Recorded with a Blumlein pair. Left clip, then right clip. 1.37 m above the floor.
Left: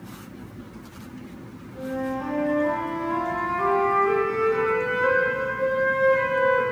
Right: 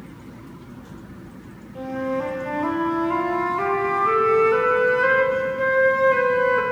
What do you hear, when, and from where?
1.8 s a flute: 25° right, 1.0 m